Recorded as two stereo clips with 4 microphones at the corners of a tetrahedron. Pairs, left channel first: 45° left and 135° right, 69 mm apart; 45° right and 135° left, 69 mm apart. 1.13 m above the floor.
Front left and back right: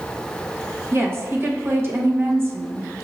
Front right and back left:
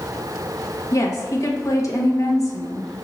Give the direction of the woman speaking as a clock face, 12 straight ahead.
3 o'clock.